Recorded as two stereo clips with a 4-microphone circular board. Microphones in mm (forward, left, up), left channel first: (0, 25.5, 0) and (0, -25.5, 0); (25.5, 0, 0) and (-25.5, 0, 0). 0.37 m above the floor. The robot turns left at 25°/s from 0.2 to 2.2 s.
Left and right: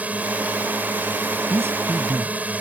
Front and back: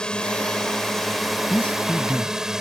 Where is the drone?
60° right; by 2.6 s 110° right.